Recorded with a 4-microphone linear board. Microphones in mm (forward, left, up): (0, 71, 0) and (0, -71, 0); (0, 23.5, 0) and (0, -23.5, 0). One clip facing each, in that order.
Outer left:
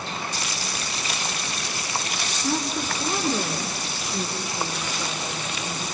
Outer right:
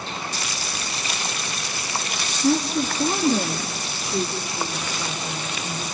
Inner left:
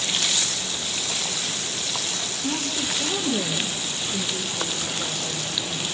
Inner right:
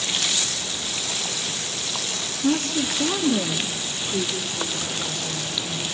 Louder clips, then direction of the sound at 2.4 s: Outer right 6 dB, inner right 6 dB; 75° right (ahead or behind).